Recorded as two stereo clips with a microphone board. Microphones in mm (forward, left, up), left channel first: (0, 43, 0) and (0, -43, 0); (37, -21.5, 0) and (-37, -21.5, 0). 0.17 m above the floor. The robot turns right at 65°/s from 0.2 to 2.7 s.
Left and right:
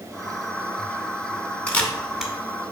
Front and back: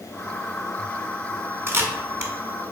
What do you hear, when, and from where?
1.7 s a camera shutter: 150° left, 0.7 m; by 2.3 s 170° right, 0.7 m